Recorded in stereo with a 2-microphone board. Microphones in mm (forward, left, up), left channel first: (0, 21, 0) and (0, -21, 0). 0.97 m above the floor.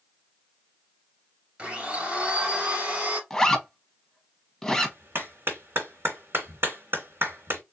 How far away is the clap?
About 3 m.